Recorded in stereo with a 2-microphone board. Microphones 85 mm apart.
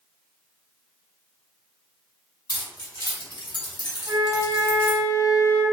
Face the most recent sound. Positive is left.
turn(degrees=-10)  # may be behind; listen again after turning